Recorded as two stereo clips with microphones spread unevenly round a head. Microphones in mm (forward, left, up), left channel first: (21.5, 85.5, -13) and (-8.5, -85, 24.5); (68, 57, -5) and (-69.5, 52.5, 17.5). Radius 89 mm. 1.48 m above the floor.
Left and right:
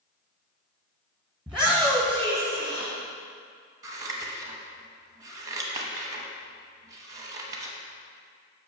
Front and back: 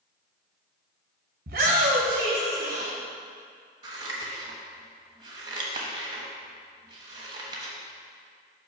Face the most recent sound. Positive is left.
turn(degrees=-145)